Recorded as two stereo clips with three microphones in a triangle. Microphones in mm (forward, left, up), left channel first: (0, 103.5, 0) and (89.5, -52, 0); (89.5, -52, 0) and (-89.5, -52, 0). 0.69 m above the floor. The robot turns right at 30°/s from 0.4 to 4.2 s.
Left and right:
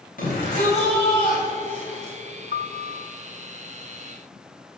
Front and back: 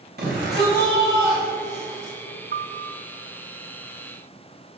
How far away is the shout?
About 4 m.